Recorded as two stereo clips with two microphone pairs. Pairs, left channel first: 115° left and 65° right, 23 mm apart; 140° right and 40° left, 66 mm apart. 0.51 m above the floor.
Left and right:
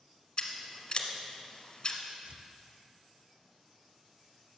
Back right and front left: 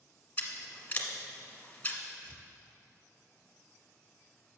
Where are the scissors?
155° left, 1.1 m.